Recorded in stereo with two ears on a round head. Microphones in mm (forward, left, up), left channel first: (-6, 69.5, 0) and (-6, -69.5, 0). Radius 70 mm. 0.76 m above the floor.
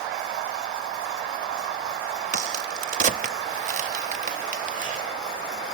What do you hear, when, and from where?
2.3 s a crack: 50° right (ahead or behind), 0.8 m